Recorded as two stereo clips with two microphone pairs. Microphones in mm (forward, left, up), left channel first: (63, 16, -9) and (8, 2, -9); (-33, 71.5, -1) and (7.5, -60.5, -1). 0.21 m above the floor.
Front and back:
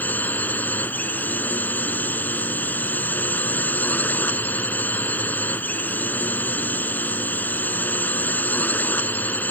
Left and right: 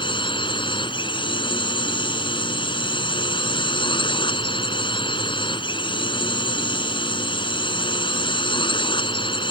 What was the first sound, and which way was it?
A drone, 65° left.